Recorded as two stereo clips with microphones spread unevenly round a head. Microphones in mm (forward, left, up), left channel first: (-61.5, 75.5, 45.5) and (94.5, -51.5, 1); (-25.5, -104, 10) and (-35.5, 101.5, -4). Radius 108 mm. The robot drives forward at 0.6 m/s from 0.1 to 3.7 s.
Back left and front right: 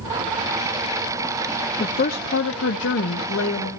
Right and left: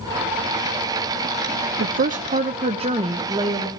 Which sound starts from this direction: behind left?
A woman speaking, at 1.8 s.